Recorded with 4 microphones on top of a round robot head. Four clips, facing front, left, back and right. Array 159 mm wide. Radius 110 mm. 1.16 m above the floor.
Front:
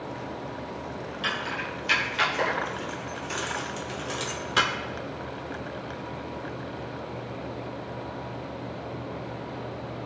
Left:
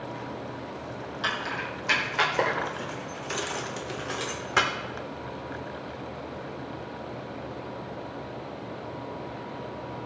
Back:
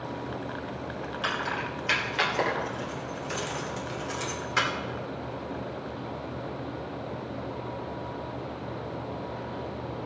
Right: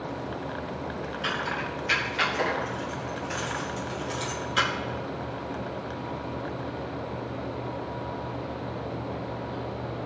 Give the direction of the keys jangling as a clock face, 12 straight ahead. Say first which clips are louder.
Even, back 1 dB; 8 o'clock.